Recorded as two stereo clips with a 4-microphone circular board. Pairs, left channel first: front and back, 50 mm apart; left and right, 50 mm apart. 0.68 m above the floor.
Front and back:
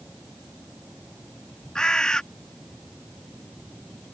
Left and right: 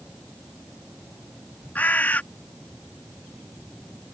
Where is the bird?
65° left.